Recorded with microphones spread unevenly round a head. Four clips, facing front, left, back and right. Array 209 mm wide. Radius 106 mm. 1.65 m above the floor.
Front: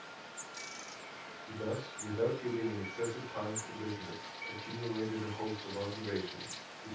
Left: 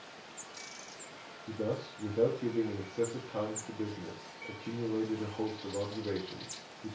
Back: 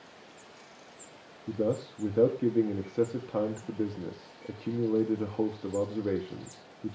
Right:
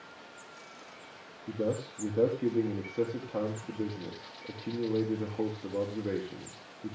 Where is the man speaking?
165° right, 4 m.